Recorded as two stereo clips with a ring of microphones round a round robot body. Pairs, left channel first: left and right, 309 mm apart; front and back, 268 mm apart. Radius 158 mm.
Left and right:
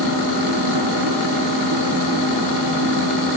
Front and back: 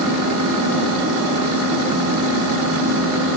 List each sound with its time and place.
0.0 s an engine running: 110° right, 9.5 m